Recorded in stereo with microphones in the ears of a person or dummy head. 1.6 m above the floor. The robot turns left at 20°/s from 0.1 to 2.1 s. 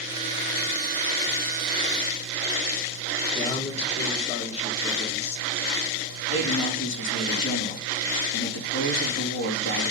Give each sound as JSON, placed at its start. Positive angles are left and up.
{"t": 3.4, "sound": "a man speaking", "side_deg": 40, "distance_m": 2.0}
{"t": 6.3, "sound": "a man speaking", "side_deg": 70, "distance_m": 3.5}